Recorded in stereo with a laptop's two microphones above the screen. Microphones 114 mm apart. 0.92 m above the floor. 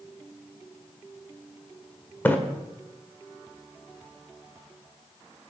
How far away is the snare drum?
I don't hear a snare drum.